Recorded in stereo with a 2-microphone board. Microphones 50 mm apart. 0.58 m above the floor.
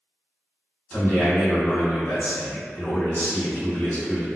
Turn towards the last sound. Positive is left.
turn(degrees=40)  # may be behind; listen again after turning